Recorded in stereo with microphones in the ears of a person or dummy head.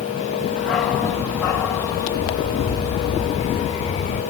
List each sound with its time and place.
0.6 s a dog barking: 5° left (ahead or behind), 2.5 m; by 4.2 s 45° left (ahead or behind), 3 m